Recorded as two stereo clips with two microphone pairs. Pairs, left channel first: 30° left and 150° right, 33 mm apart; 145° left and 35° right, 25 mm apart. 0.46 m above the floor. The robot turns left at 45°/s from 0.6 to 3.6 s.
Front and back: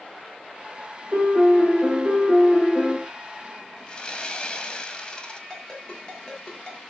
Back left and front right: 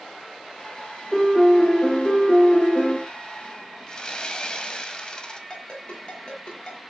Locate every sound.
1.1 s a piano: 125° right, 7.5 m; by 3.0 s 150° left, 7.5 m
3.9 s sawing: 90° left, 1.9 m
5.5 s a ringtone: 100° left, 6 m